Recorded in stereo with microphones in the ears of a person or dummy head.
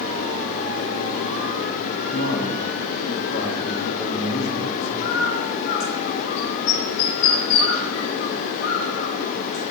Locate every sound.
2.1 s a man speaking: 80° left, 3.5 m; by 5.3 s 70° left (ahead or behind), 5 m
5.0 s a bird: 70° left (ahead or behind), 6 m